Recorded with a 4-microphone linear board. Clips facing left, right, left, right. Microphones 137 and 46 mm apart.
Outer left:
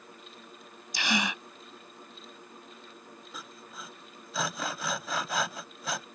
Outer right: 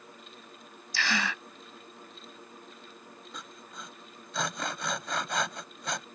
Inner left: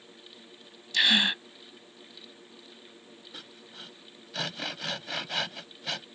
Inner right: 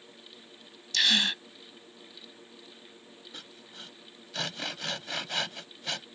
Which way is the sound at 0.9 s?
20° left (ahead or behind).